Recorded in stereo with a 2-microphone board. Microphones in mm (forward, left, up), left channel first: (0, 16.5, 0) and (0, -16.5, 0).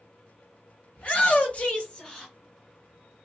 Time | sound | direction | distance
1.0 | a shout | 40° left (ahead or behind) | 1.5 m